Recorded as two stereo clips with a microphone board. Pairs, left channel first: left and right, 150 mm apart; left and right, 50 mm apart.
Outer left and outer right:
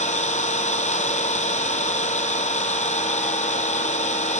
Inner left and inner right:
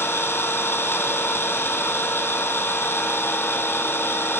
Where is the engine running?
50° left (ahead or behind), 1.6 m.